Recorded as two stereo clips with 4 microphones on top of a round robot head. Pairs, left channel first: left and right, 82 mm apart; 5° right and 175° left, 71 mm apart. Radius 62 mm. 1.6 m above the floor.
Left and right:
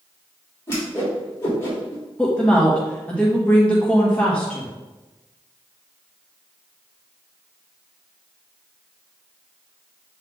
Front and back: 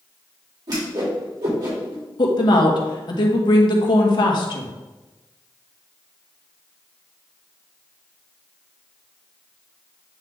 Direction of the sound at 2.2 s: 10° left.